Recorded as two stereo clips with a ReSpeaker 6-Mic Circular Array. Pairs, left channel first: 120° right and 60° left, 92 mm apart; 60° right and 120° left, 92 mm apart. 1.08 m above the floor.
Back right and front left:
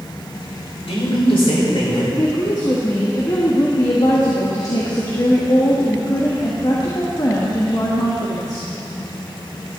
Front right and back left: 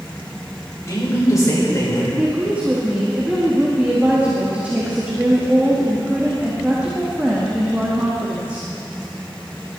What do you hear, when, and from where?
0.9 s a man speaking: 115° right, 4.5 m
2.2 s a woman speaking: 165° right, 1.6 m